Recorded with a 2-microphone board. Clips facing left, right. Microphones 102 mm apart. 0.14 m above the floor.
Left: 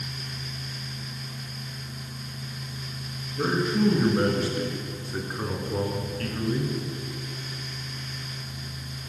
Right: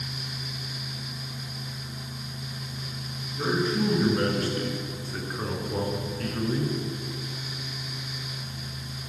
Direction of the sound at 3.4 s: 25° left (ahead or behind).